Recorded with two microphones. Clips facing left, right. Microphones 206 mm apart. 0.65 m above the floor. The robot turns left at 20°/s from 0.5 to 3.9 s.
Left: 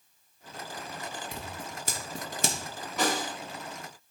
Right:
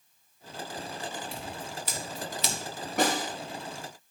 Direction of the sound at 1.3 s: 45° left (ahead or behind).